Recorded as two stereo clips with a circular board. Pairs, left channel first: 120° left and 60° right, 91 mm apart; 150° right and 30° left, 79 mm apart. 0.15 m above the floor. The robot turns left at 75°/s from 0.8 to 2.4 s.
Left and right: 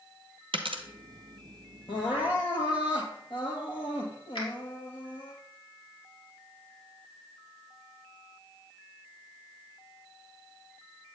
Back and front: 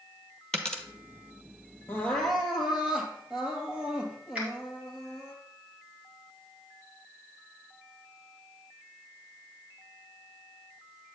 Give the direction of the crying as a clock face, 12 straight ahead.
7 o'clock.